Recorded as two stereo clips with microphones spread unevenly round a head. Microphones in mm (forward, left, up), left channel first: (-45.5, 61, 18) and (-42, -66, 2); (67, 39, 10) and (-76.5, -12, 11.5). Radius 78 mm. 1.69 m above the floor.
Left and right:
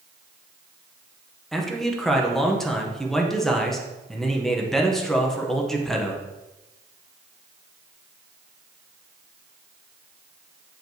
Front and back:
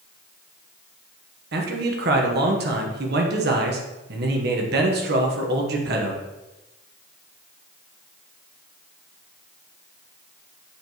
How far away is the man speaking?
About 1.3 m.